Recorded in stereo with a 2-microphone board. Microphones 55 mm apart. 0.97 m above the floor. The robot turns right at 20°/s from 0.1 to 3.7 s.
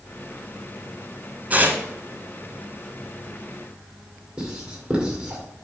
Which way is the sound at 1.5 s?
30° right (ahead or behind).